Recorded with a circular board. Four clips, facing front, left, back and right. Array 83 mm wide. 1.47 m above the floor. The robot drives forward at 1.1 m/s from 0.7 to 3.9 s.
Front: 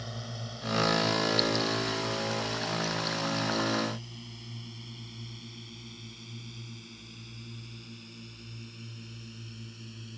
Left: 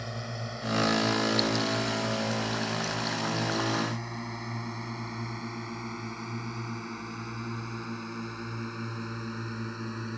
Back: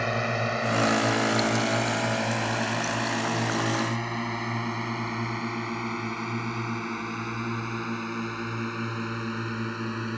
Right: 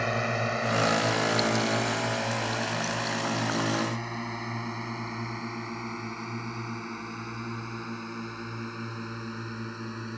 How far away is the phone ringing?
No phone ringing in this recording.